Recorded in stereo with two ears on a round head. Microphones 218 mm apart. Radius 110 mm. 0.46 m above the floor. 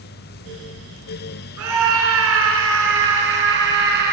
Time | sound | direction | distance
1.6 | a scream | 60° right (ahead or behind) | 6.5 m